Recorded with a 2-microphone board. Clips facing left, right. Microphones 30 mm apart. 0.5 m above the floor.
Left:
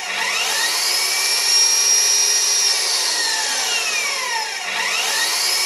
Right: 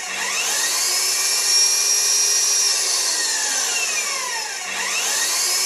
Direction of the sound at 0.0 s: 40° left (ahead or behind).